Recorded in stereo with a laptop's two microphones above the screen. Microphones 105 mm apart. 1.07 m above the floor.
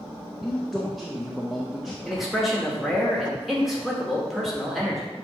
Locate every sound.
0.4 s a man speaking: centre (ahead or behind), 0.6 m
2.0 s a man speaking: centre (ahead or behind), 1.3 m